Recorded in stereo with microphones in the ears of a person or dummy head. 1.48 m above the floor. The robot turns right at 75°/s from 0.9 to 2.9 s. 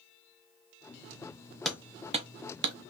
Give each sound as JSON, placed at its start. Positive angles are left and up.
{"t": 1.6, "sound": "hammering", "side_deg": 0, "distance_m": 0.5}